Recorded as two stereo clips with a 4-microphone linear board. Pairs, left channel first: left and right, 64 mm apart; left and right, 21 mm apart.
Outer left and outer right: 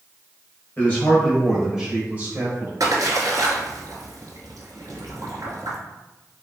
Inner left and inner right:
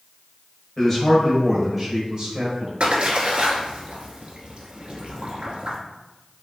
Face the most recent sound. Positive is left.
turn(degrees=-75)  # may be behind; listen again after turning